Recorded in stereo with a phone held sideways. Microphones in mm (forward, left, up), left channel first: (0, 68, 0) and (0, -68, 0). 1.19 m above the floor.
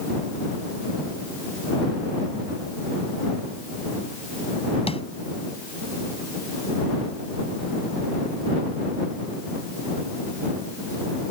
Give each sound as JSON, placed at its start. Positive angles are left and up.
{"t": 4.9, "sound": "tapping", "side_deg": 45}